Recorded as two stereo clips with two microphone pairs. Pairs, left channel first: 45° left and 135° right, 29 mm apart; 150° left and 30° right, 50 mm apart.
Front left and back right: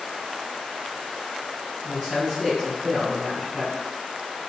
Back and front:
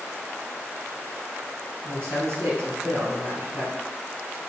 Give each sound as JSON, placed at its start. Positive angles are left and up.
{"t": 1.8, "sound": "a man speaking", "azimuth_deg": -55, "distance_m": 1.8}